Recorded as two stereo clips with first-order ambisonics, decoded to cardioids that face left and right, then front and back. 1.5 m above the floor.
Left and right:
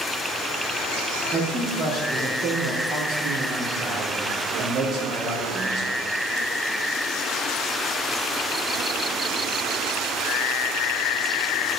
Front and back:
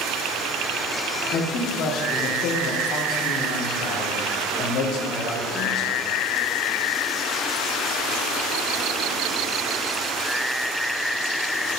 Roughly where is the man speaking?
Ahead right.